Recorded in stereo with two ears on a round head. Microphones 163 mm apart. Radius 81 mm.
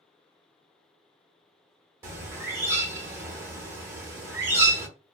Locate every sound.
2.0 s a bird: 15° right (ahead or behind), 0.9 m